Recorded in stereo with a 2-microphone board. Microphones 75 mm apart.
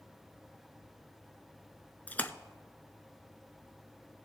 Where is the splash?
20° left (ahead or behind), 0.6 m.